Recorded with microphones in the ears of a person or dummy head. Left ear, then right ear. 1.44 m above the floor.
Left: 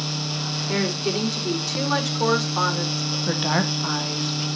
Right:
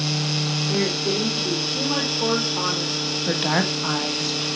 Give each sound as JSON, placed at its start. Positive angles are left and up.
{"t": 0.7, "sound": "a woman speaking", "side_deg": 75, "distance_m": 4.5}
{"t": 3.3, "sound": "a woman speaking", "side_deg": -5, "distance_m": 1.5}